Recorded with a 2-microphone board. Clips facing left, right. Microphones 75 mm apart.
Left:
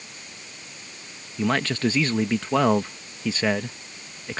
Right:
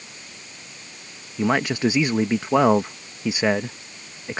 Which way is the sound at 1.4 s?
15° right (ahead or behind).